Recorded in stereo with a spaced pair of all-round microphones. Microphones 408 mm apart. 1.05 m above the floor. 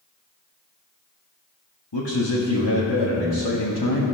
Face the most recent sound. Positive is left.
turn(degrees=80)